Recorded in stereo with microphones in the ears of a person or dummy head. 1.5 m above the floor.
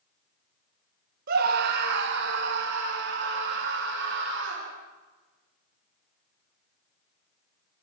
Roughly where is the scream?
Right.